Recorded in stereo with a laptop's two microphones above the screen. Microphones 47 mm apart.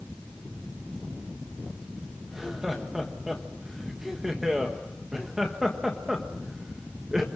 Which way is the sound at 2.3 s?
10° right (ahead or behind).